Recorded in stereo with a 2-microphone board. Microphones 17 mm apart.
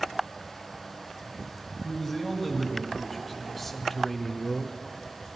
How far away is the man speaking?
About 2.5 m.